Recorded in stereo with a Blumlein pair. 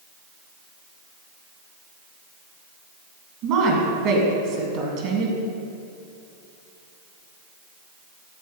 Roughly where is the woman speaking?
Ahead right.